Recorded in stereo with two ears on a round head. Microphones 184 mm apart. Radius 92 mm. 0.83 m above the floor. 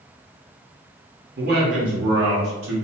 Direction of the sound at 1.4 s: 45° right (ahead or behind).